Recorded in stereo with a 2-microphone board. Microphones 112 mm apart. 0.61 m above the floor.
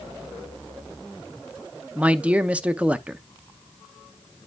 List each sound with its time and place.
1.9 s a man speaking: 10° right (ahead or behind), 0.7 m